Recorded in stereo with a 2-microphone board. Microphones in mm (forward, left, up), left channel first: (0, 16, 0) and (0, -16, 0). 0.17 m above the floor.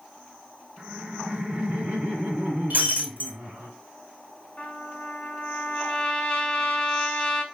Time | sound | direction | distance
0.8 | laughter | 40° right (ahead or behind) | 1.8 m
2.7 | breaking glass | 65° right (ahead or behind) | 1.2 m
4.6 | a trumpet | 35° left (ahead or behind) | 1.1 m